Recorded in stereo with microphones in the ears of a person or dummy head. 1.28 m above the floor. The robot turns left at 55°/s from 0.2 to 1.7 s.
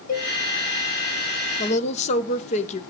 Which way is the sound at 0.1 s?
40° left (ahead or behind).